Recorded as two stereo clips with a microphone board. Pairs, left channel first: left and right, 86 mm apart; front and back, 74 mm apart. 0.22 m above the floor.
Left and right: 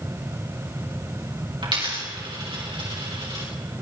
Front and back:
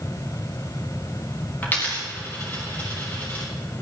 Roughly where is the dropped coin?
Ahead right.